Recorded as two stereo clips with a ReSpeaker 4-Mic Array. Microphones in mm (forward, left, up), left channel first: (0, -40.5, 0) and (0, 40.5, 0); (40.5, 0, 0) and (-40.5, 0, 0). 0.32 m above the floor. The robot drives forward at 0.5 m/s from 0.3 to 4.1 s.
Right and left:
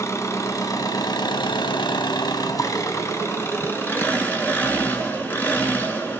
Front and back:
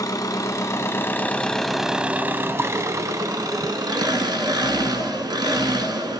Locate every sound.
0.0 s an engine running: 40° right, 0.9 m; by 6.2 s 155° right, 1.4 m